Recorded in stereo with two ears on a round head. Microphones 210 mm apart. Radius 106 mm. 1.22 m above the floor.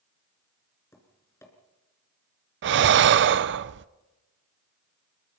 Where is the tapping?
10° left (ahead or behind), 3.5 m.